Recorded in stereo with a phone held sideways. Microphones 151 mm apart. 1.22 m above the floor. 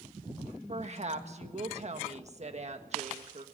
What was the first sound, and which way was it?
A woman speaking, 45° right (ahead or behind).